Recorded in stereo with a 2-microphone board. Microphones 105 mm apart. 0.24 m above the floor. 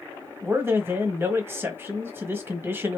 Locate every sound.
0.4 s a man speaking: 20° right (ahead or behind), 1.1 m